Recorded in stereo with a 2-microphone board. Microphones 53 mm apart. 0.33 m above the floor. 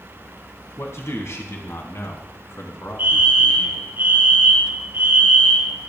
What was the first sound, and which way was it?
A man speaking, 60° left (ahead or behind).